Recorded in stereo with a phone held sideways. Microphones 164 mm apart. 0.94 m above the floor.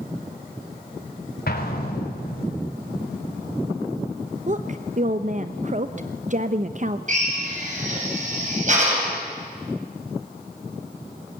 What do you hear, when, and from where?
1.5 s an explosion: 65° left (ahead or behind), 4 m
4.5 s a woman speaking: 50° right (ahead or behind), 0.8 m
7.1 s a drill: 50° right (ahead or behind), 7 m